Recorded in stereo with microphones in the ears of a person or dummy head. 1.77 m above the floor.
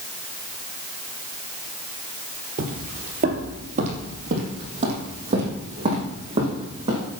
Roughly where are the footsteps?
Right.